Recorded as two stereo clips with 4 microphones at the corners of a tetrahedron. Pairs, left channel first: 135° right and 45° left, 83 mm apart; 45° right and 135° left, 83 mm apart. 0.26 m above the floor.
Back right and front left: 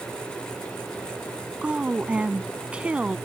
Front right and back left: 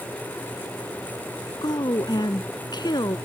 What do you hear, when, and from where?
1.6 s a woman speaking: 30° right